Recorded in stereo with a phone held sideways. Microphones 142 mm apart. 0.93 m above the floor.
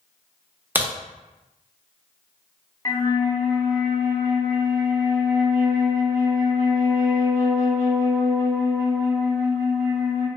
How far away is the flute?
About 0.7 m.